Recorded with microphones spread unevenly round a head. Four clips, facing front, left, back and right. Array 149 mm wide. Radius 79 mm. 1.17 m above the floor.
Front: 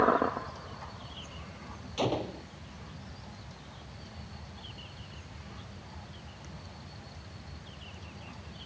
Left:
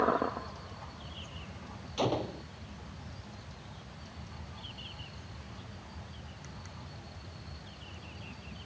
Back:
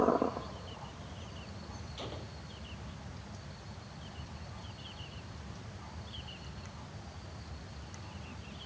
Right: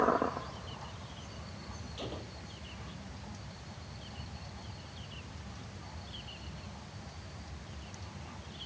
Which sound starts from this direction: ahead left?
A gunshot, at 2.0 s.